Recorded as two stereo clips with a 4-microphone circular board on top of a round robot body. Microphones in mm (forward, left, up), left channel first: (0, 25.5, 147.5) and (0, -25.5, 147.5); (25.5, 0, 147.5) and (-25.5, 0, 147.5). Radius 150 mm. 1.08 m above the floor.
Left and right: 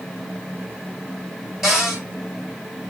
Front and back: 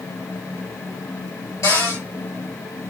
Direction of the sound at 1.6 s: Straight ahead.